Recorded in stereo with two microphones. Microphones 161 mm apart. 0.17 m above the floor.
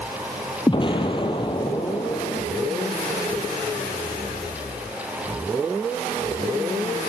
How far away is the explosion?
About 3 m.